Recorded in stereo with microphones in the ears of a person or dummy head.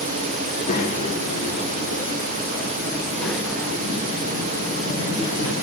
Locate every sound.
0.4 s a child speaking: 45° left (ahead or behind), 2 m; by 5.5 s 20° right (ahead or behind), 2.5 m